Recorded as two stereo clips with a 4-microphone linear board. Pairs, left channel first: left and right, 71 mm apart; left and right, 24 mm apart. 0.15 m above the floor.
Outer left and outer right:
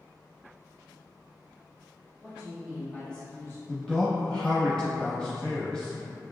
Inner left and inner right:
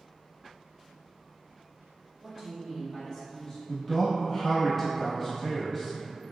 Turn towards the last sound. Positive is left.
turn(degrees=10)  # may be behind; listen again after turning